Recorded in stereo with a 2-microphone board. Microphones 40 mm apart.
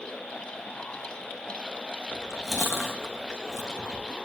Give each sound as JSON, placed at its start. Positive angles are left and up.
{"t": 2.1, "sound": "chewing", "side_deg": -5, "distance_m": 4.0}